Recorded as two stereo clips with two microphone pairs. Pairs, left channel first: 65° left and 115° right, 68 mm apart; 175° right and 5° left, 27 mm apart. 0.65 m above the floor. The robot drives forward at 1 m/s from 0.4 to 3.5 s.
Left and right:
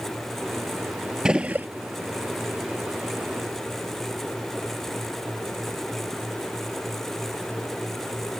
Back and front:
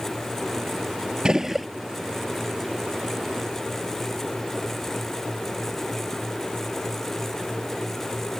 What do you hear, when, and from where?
1.2 s a gunshot: 40° right; by 1.7 s 90° right